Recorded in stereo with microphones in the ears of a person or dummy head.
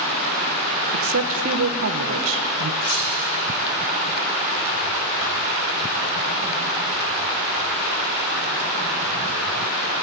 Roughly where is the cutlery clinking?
Left.